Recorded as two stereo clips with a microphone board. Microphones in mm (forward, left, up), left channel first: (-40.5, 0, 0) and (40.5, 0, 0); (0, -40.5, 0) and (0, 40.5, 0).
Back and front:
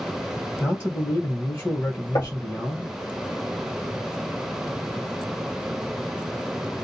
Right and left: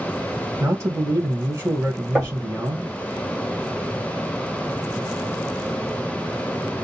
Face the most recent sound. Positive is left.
turn(degrees=165)